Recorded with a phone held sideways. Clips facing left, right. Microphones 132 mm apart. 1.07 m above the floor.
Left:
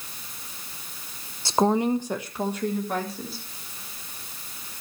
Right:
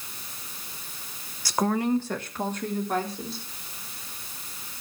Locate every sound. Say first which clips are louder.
1.4 s a woman speaking: left 3 dB; 25° left (ahead or behind), 0.7 m; by 3.4 s 5° left (ahead or behind), 3 m